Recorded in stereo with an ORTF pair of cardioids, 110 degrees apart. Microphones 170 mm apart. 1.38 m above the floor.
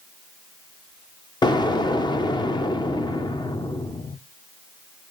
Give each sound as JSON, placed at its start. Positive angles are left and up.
{"t": 1.4, "sound": "an explosion", "azimuth_deg": 25, "distance_m": 0.8}